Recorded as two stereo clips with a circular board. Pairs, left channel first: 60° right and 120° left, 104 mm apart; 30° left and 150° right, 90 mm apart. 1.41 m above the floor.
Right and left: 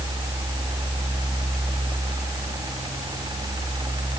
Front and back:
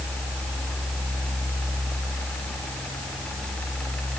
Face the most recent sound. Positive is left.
No sound to turn to.